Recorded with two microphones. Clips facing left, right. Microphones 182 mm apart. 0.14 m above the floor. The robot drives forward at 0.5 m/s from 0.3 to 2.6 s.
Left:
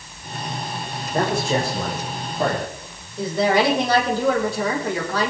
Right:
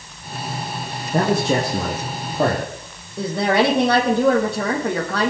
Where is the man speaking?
65° right (ahead or behind), 4 m; by 2.7 s 70° right (ahead or behind), 4 m.